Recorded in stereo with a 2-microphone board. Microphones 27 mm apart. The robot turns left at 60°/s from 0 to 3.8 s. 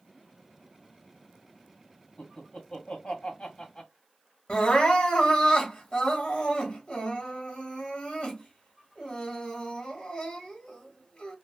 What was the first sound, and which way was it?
Laughter, 35° left (ahead or behind).